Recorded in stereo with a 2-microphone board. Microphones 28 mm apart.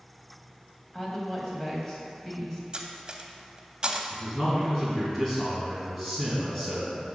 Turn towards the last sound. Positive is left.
turn(degrees=15)  # may be behind; listen again after turning